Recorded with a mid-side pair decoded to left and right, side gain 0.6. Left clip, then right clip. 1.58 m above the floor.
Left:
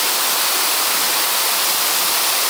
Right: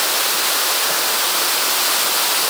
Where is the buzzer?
I don't hear a buzzer.